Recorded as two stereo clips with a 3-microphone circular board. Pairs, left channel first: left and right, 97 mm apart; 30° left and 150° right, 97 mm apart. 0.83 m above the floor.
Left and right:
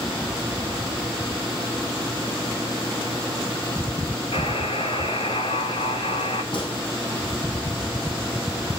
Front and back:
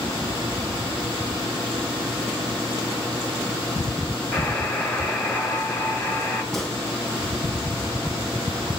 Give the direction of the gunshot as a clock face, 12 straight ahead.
8 o'clock.